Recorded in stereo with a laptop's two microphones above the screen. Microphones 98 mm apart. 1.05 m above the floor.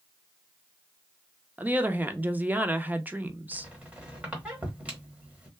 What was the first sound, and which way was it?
A woman speaking, 15° right (ahead or behind).